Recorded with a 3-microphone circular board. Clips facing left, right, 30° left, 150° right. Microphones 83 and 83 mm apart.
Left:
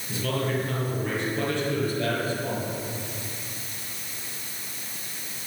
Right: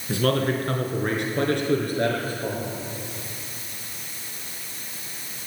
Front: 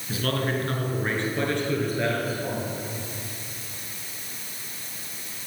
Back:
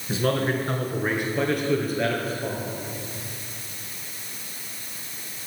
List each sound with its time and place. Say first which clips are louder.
0.1 s a man speaking: right 5 dB, back 3 dB; 90° right, 3 m; by 2.7 s 55° right, 4.5 m